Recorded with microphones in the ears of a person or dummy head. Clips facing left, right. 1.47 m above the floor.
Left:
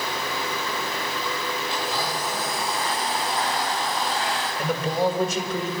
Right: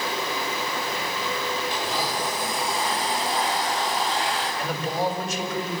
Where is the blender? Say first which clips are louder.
Even; 10° right (ahead or behind), 10 m.